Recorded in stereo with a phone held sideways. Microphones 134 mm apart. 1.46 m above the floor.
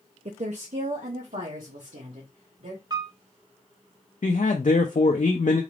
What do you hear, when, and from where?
0.2 s a woman speaking: 55° right (ahead or behind), 0.5 m; by 2.8 s 80° right, 2.5 m
2.9 s a piano: 30° right (ahead or behind), 0.5 m
4.2 s a man speaking: 70° left (ahead or behind), 0.5 m